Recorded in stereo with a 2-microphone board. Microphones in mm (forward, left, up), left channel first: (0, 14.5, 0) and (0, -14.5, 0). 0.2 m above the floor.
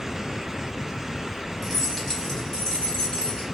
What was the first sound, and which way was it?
Keys jangling, 5° right (ahead or behind).